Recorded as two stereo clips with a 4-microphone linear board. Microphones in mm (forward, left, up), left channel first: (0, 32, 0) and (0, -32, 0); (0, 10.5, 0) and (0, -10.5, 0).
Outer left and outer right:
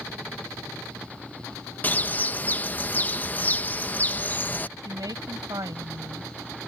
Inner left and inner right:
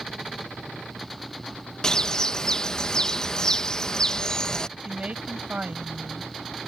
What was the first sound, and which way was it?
A bird, 30° left (ahead or behind).